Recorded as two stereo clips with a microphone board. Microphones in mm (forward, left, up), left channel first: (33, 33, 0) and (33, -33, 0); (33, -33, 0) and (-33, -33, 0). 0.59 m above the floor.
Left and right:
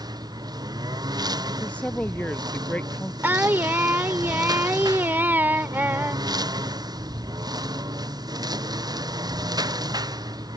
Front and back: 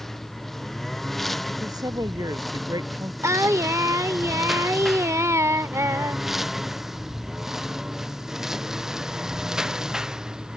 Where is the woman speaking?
160° left.